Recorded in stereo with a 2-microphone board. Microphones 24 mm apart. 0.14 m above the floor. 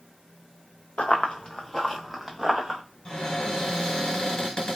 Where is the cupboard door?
35° left (ahead or behind), 1.4 m.